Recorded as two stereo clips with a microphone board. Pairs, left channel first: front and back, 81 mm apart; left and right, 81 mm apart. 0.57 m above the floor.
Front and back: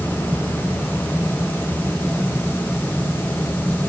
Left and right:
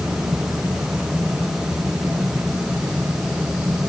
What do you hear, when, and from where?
Only background noise.